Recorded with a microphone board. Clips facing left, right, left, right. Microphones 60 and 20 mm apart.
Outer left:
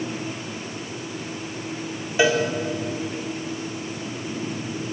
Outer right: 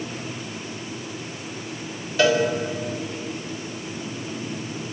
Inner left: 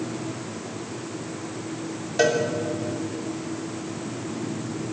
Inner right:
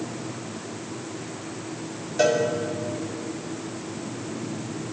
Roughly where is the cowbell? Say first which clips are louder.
Outer right 1 dB, even; centre.